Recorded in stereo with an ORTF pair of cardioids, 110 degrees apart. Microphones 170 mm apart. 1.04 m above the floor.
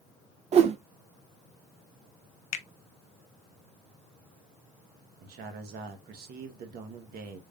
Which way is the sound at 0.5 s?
40° right.